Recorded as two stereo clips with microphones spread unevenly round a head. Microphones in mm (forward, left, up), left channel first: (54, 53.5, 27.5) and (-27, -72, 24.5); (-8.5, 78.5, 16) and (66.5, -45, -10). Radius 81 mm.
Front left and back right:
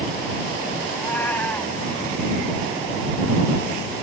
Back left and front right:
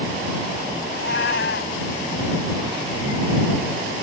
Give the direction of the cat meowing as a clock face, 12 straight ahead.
7 o'clock.